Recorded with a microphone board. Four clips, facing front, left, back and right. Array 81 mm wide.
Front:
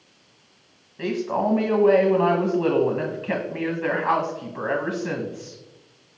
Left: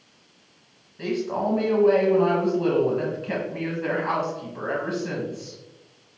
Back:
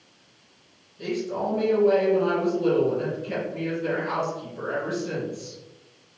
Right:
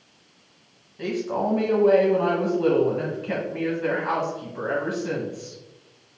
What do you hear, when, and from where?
1.0 s a man speaking: 10° right, 1.0 m